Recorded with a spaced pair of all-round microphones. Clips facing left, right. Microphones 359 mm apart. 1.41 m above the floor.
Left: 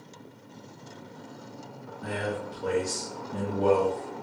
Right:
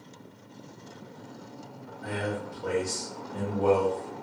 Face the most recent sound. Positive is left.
turn(degrees=45)  # may be behind; listen again after turning